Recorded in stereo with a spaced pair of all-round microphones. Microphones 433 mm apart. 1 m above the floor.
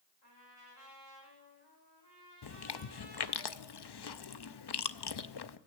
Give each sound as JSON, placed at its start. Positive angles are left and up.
{"t": 0.2, "sound": "a trumpet", "side_deg": 70, "distance_m": 4.5}
{"t": 2.4, "sound": "chewing", "side_deg": 65, "distance_m": 0.5}